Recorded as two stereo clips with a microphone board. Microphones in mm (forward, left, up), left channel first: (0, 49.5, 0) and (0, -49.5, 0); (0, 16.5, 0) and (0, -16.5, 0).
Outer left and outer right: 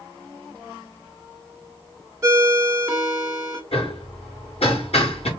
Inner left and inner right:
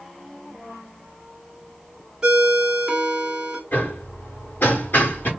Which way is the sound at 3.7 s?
80° left.